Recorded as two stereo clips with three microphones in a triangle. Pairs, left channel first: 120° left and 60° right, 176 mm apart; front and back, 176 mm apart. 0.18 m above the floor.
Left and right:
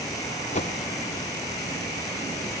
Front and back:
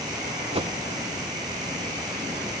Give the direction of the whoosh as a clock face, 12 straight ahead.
7 o'clock.